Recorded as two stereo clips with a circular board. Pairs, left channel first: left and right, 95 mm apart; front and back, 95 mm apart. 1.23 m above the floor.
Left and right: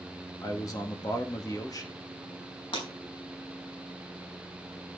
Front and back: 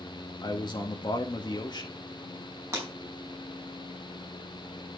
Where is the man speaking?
40° left, 2.0 m.